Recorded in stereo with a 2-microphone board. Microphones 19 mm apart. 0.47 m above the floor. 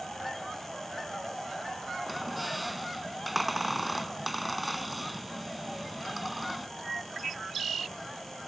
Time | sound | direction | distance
2.1 | a squeak | centre (ahead or behind) | ?